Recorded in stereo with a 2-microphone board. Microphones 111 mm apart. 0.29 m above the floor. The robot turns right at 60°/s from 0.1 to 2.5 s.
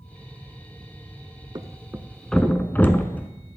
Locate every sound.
1.6 s a thud: 40° right (ahead or behind), 0.7 m; by 3.3 s 15° left (ahead or behind), 0.7 m